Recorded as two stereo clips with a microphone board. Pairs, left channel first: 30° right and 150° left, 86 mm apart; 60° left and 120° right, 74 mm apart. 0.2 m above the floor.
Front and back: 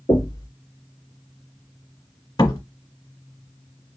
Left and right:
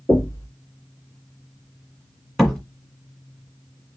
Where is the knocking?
10° left, 2 m.